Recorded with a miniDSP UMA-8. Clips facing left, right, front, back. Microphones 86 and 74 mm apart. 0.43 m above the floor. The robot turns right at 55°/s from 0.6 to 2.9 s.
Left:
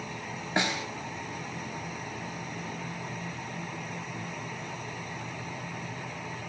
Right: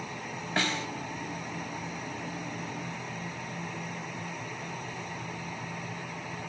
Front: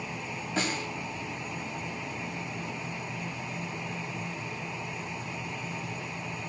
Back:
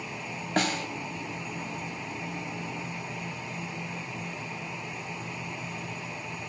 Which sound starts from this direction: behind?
A snare drum, at 0.6 s.